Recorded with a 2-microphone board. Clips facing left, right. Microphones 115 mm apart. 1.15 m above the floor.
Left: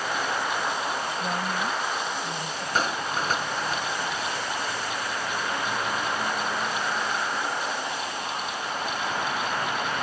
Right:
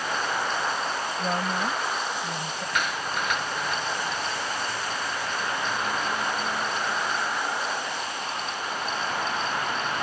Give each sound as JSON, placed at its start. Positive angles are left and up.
{"t": 1.2, "sound": "a woman speaking", "side_deg": -25}
{"t": 2.8, "sound": "a clap", "side_deg": 35}